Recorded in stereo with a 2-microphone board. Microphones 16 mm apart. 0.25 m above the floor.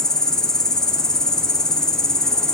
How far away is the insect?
About 1.3 m.